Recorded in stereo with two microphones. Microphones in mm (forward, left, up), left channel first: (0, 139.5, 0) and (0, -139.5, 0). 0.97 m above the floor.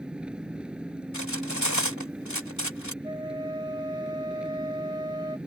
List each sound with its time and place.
0.0 s an engine running: 5° right (ahead or behind)
1.1 s cutlery clinking: 85° left
3.0 s a flute: 15° right (ahead or behind)